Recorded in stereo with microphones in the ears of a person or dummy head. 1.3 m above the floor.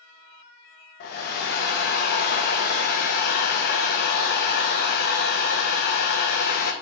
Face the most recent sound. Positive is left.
turn(degrees=50)  # may be behind; listen again after turning